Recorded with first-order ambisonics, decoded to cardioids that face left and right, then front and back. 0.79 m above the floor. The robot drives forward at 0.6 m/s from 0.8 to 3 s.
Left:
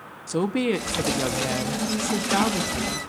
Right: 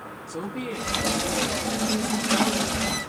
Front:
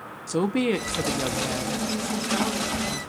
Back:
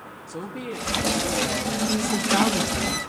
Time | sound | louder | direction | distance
0.3 | a woman speaking | left 9 dB, front 10 dB | 45° left | 0.8 m